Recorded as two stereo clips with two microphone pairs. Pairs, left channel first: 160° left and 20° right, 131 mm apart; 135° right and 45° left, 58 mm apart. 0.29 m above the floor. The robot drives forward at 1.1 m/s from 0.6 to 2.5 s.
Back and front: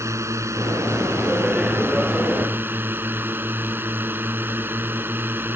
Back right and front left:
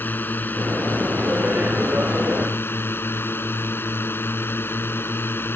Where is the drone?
85° right; by 5.6 s 90° right.